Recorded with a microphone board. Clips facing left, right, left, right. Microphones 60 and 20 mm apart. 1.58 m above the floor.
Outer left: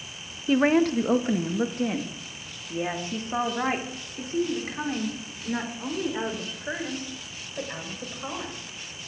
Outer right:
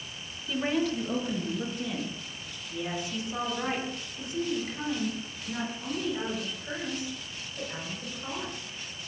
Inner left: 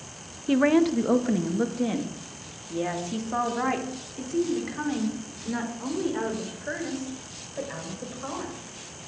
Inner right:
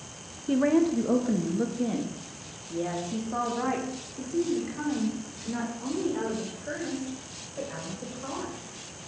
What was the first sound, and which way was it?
A woman speaking, 55° left (ahead or behind).